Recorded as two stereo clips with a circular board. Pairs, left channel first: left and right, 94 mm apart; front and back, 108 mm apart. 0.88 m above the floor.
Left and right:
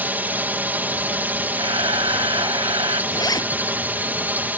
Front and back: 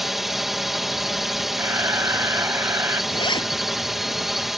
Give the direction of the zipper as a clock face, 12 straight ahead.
11 o'clock.